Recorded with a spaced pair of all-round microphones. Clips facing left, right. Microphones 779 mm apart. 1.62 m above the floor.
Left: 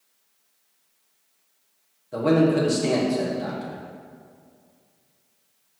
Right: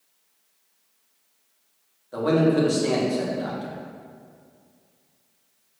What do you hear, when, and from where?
2.1 s a man speaking: 55° left (ahead or behind), 1.6 m